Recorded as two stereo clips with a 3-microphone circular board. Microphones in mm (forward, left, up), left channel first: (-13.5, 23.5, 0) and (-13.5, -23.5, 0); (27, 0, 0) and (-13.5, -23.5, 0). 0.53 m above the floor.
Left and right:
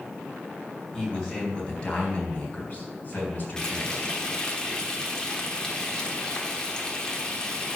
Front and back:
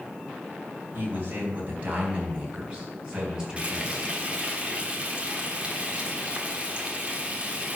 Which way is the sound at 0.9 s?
165° left.